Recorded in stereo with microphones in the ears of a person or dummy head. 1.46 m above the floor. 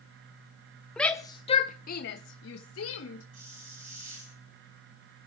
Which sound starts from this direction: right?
A hiss, at 3.3 s.